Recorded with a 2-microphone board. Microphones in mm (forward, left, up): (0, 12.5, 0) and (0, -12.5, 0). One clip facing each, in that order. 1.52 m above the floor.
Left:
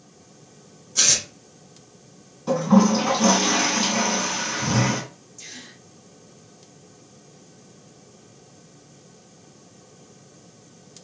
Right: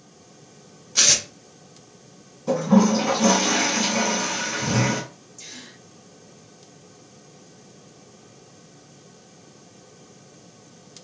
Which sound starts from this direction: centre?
A gasp, at 5.4 s.